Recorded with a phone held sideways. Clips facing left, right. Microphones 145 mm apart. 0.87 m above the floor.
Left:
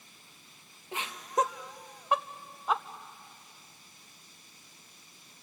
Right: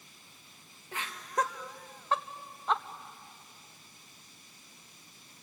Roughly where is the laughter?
Centre.